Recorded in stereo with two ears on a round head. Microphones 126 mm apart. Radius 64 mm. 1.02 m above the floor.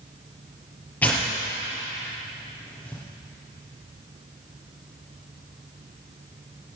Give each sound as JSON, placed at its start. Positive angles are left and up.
{"t": 1.0, "sound": "tearing paper", "side_deg": 10, "distance_m": 4.5}